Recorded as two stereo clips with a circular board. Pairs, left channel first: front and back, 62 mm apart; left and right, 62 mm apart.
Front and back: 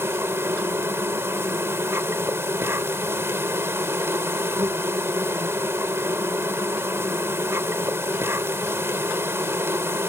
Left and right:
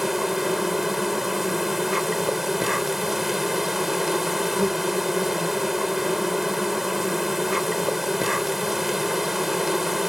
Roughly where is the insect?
Behind.